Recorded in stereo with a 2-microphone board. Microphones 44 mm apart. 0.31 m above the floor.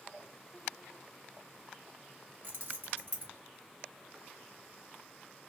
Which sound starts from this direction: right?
Keys jangling, at 2.4 s.